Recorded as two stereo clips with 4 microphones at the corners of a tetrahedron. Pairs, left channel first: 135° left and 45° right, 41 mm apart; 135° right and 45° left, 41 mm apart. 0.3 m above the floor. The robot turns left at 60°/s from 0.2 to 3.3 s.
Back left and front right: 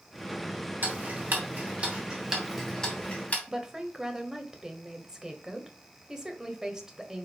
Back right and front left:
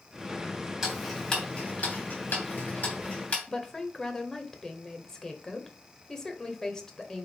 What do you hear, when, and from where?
0.8 s ticking: 35° right, 2.5 m; by 3.4 s straight behind, 2.5 m
3.5 s a woman speaking: 90° right, 1.1 m